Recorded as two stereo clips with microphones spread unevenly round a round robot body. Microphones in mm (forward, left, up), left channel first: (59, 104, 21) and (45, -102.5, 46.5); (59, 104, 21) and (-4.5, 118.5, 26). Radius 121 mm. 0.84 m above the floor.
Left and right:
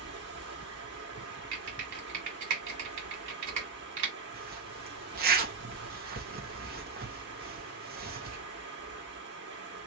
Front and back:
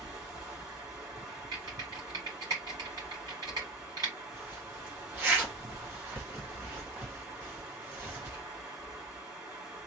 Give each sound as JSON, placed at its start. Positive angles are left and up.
{"t": 0.0, "sound": "running water", "azimuth_deg": -140, "distance_m": 1.5}
{"t": 1.5, "sound": "typing on a keyboard", "azimuth_deg": -135, "distance_m": 1.9}
{"t": 4.3, "sound": "a zipper", "azimuth_deg": -135, "distance_m": 1.1}